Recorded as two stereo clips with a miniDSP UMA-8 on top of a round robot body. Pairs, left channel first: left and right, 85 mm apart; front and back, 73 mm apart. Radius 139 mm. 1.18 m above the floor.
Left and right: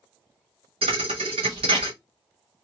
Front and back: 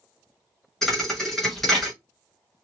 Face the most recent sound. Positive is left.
turn(degrees=-85)